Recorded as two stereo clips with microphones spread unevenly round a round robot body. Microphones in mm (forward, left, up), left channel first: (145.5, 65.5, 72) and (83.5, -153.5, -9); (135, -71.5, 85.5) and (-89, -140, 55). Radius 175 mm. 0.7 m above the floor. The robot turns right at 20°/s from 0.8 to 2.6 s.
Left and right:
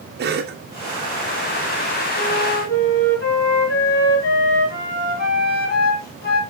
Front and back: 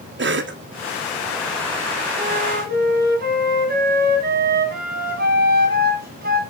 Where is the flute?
125° left, 1.4 m; by 6.4 s 135° left, 1.4 m.